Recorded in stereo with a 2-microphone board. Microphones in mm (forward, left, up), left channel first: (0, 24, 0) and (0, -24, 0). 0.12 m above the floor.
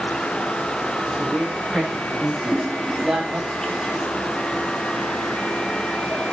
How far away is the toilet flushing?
About 2.5 m.